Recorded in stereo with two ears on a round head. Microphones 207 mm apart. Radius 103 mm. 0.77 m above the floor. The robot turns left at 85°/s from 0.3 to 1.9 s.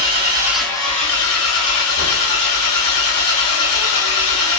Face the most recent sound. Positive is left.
turn(degrees=70)